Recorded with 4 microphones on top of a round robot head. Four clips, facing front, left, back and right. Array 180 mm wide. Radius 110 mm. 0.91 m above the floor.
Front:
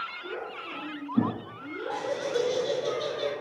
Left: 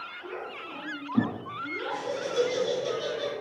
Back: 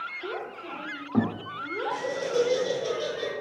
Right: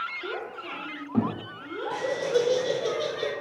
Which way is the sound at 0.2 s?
140° right.